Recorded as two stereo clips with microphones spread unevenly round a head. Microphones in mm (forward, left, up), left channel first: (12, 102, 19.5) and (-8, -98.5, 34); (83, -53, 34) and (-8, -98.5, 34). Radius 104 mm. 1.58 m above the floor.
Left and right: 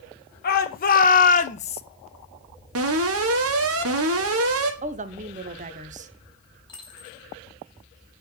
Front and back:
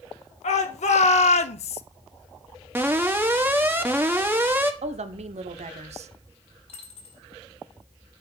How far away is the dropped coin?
About 3.5 m.